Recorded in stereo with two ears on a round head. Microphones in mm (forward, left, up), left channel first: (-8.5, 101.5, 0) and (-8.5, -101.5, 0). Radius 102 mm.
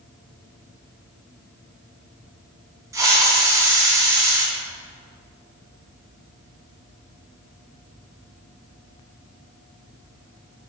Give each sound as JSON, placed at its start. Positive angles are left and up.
{"t": 2.9, "sound": "a hiss", "side_deg": -15, "distance_m": 2.5}